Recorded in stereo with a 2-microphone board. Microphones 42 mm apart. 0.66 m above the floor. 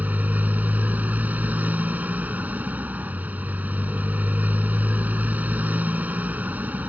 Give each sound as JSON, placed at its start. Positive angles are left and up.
{"t": 0.0, "sound": "a motorcycle", "side_deg": -40}